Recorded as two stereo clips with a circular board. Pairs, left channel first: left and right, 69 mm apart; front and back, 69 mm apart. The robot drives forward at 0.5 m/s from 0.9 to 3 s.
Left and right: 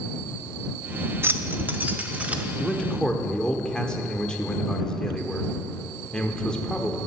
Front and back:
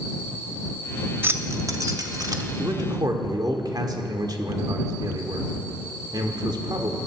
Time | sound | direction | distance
1.2 | keys jangling | 135° right | 0.6 m
2.6 | a man speaking | 165° left | 1.2 m